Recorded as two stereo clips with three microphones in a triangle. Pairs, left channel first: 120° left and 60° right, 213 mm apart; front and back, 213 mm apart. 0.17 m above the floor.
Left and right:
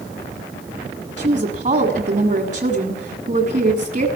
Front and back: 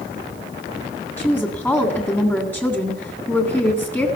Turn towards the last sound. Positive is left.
turn(degrees=-75)